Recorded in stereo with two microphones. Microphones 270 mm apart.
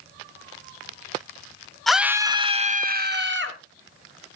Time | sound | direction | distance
1.9 | a scream | centre (ahead or behind) | 1.1 m